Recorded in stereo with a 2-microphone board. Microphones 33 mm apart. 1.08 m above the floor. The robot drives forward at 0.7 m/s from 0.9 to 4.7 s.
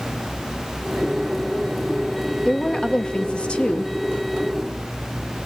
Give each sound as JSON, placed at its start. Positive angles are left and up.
{"t": 2.5, "sound": "a woman speaking", "side_deg": 20, "distance_m": 1.2}